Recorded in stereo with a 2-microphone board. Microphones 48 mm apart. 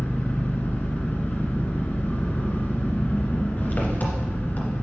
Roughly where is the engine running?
Left.